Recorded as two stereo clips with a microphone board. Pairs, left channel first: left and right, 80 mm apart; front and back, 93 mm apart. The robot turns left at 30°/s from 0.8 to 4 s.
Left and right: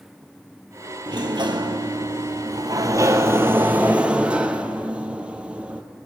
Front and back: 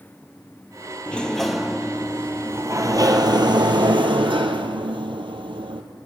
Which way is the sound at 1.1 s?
75° right.